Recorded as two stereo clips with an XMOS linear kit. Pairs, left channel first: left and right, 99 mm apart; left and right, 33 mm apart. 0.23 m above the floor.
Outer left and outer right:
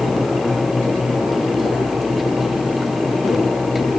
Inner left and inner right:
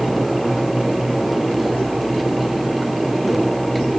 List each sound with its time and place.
Only background noise.